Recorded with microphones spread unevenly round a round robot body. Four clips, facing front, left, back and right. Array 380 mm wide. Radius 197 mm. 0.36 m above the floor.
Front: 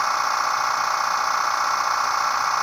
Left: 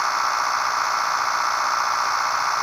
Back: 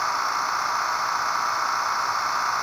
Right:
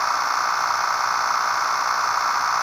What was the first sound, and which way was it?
Only background noise.